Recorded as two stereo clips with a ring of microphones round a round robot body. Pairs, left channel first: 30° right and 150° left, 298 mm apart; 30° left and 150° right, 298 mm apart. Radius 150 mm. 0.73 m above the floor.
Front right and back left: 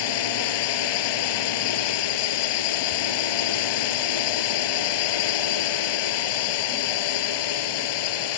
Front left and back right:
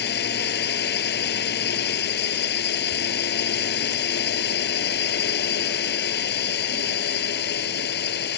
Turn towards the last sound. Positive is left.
turn(degrees=-30)